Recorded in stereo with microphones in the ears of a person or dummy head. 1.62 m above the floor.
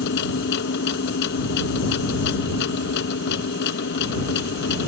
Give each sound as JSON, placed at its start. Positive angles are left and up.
{"t": 0.0, "sound": "a machine running", "side_deg": 60}